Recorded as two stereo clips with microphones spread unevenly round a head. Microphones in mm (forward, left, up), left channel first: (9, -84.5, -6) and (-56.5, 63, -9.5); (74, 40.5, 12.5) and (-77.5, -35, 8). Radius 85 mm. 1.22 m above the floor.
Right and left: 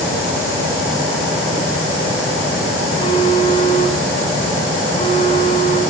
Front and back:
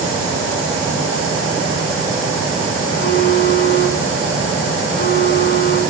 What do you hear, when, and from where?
2.9 s a phone buzzing: 5° right, 3 m